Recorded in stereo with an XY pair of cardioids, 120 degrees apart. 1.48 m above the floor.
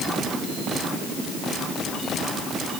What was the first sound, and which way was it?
Only background noise.